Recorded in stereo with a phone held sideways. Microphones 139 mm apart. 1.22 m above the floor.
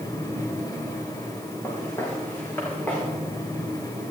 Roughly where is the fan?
Left.